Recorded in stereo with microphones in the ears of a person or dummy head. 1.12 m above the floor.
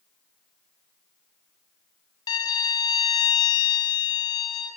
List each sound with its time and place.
2.3 s a violin: 25° left (ahead or behind), 0.9 m